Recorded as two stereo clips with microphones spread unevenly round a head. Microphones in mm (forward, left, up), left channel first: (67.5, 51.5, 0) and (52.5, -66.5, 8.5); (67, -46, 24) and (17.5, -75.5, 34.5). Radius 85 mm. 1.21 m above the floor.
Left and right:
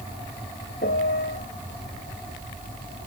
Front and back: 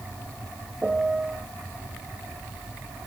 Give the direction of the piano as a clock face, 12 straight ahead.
8 o'clock.